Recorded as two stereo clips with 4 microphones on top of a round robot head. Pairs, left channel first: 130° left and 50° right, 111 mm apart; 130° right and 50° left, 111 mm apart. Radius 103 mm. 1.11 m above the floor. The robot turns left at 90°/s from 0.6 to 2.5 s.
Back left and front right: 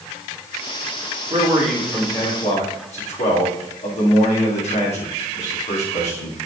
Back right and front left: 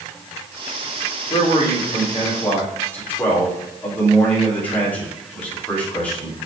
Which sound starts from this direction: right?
A man speaking, at 1.3 s.